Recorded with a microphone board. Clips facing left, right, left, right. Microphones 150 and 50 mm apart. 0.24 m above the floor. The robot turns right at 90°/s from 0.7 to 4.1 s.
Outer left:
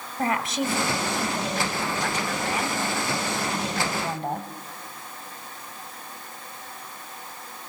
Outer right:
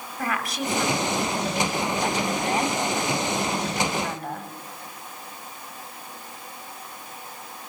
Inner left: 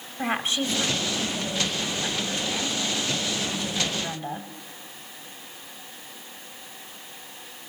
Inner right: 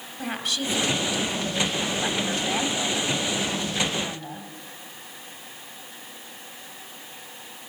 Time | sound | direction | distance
0.2 | a woman speaking | 25° left (ahead or behind) | 1.5 m